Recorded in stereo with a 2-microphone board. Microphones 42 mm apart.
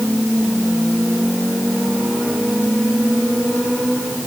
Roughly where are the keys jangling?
I don't hear keys jangling.